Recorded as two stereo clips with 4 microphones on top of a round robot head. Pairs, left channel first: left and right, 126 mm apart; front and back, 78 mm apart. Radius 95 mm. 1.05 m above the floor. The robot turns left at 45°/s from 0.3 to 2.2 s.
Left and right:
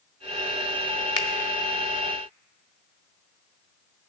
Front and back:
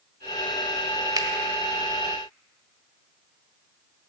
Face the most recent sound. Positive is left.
turn(degrees=95)